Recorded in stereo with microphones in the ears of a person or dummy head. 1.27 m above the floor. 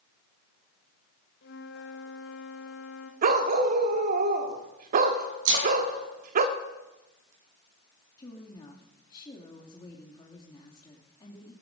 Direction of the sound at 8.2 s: 25° left (ahead or behind).